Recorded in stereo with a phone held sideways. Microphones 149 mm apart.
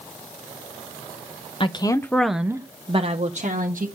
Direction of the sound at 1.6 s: 35° left (ahead or behind).